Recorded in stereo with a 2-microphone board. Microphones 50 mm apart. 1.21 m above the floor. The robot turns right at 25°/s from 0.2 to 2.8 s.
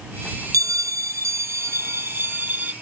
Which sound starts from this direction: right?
A bell, at 0.5 s.